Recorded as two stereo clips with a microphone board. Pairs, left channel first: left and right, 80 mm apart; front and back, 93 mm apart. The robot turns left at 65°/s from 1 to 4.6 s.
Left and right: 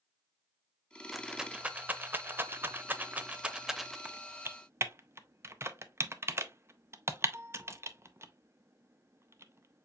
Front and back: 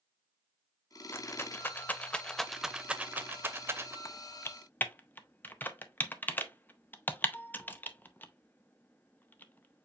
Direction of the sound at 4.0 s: 20° right.